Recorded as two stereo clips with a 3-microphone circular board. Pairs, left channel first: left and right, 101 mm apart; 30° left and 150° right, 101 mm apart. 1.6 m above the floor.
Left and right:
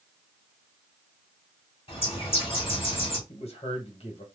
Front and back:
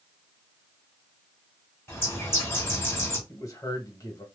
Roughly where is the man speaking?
Left.